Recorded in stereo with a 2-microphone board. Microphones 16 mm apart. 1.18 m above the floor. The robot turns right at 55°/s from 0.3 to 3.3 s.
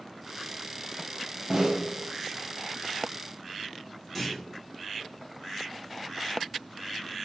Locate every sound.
1.5 s a snare drum: 20° right (ahead or behind), 0.6 m; by 1.8 s 35° right (ahead or behind), 0.6 m
4.2 s a clunk: 5° left (ahead or behind), 0.6 m